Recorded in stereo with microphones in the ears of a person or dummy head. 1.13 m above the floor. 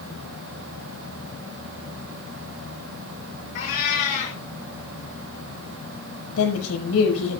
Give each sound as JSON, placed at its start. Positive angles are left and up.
{"t": 3.5, "sound": "a cat meowing", "side_deg": 45, "distance_m": 4.5}
{"t": 6.4, "sound": "a woman speaking", "side_deg": 85, "distance_m": 6.0}